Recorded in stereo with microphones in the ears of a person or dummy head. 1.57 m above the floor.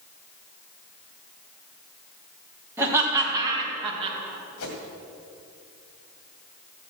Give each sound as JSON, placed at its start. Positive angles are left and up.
{"t": 2.8, "sound": "laughter", "side_deg": -10, "distance_m": 4.0}
{"t": 4.6, "sound": "a whoosh", "side_deg": 75, "distance_m": 2.5}